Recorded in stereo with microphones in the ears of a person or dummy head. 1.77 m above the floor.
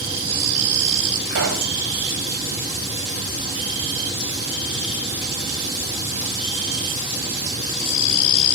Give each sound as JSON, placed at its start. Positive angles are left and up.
{"t": 1.3, "sound": "a pop", "side_deg": -70, "distance_m": 3.5}